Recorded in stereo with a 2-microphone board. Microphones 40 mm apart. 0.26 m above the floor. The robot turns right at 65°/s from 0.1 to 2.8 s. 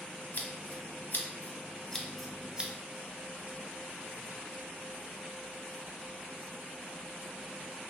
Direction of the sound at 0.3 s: 50° left (ahead or behind).